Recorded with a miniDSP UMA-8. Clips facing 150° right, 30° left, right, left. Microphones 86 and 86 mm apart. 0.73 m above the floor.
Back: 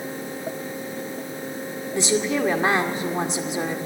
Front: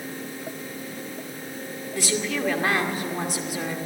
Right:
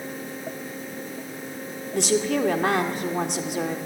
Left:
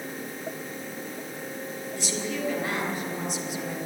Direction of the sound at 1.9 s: 85° right.